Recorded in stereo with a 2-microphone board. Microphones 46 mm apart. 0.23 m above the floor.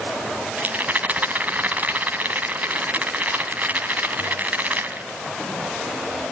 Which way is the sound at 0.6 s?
35° right (ahead or behind).